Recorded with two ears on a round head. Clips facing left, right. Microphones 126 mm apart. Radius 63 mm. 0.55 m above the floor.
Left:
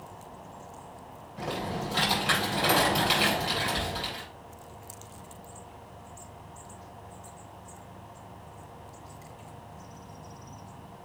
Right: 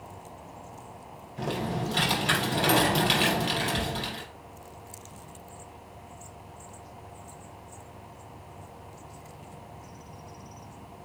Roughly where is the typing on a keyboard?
Right.